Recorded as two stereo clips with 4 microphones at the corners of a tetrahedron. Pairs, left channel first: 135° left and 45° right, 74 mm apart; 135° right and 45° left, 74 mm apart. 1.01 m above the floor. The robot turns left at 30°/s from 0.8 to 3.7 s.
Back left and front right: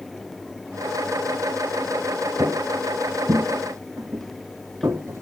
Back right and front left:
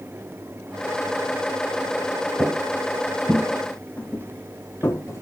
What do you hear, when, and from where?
2.4 s footsteps: 10° left, 1.3 m; by 5.2 s 85° right, 2 m